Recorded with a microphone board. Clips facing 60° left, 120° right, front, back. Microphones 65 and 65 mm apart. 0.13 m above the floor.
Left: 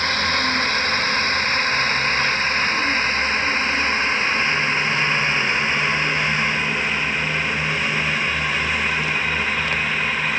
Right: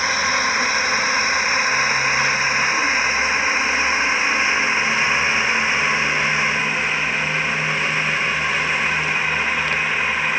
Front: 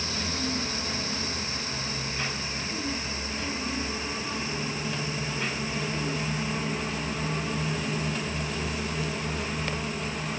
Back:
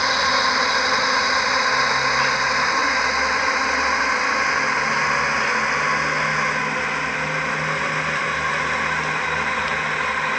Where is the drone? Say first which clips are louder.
Right 2 dB, back 14 dB; 160° left.